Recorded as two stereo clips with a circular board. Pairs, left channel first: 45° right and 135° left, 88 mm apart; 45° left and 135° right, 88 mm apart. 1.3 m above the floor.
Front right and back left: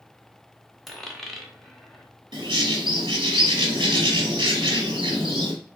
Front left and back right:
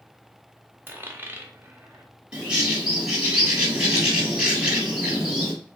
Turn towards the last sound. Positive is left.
turn(degrees=150)